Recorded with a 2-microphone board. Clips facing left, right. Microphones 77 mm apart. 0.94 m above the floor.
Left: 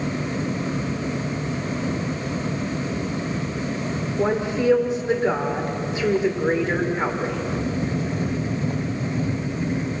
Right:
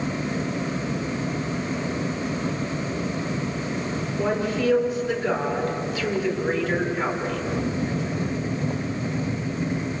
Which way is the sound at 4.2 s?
25° left (ahead or behind).